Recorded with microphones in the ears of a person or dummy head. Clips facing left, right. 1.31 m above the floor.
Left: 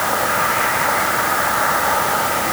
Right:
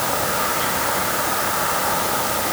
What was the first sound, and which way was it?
Only background noise.